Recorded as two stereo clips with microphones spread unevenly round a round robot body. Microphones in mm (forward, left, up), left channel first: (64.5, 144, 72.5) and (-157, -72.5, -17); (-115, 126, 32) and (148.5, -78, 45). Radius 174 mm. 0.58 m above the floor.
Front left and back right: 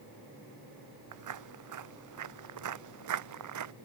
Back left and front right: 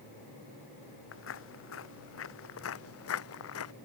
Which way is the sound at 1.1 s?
160° right.